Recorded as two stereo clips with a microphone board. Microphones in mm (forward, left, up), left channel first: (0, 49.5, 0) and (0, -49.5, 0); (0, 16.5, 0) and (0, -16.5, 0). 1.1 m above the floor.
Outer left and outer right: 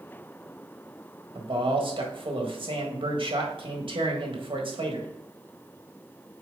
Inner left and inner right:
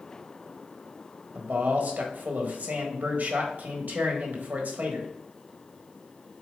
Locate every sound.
1.4 s a man speaking: 55° right (ahead or behind), 1.6 m